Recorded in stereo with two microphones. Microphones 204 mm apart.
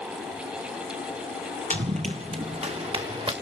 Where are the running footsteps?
35° right (ahead or behind), 1.6 m; by 3.3 s 25° right (ahead or behind), 3 m.